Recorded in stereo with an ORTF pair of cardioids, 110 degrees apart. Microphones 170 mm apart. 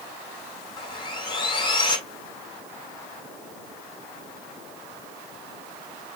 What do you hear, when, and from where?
0.8 s sawing: 30° left, 6.5 m